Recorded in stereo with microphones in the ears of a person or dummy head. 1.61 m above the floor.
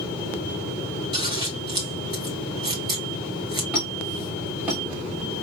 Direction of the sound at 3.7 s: 5° right (ahead or behind).